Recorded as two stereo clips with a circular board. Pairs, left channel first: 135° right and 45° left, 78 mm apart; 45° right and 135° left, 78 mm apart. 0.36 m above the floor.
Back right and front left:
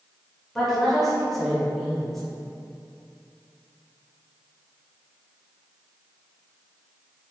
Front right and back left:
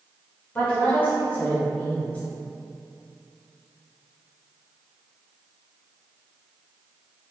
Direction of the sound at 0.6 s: 50° right.